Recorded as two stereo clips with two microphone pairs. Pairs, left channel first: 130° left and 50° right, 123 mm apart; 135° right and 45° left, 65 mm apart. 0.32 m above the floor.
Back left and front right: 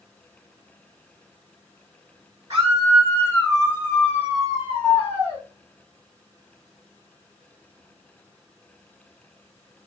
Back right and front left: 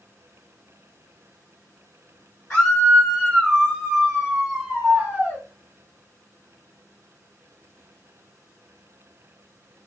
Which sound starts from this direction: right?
A scream, at 2.5 s.